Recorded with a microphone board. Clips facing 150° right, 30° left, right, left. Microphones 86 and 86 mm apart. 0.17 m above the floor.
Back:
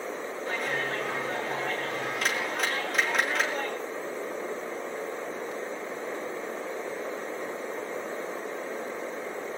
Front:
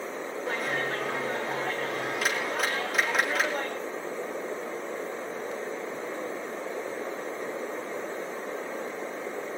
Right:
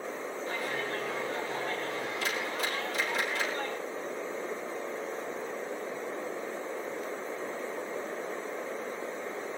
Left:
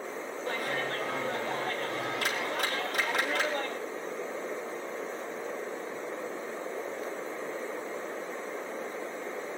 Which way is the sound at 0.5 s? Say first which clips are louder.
Front 1 dB, left 3 dB; 115° left.